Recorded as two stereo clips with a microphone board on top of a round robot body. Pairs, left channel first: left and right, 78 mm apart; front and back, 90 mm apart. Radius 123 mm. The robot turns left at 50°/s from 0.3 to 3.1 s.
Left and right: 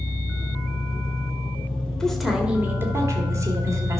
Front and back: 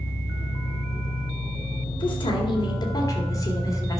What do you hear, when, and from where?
0.0 s an engine running: 85° left, 3 m; by 4.0 s 55° right, 3 m
2.0 s a woman speaking: 10° left, 2 m; by 4.0 s 45° right, 2 m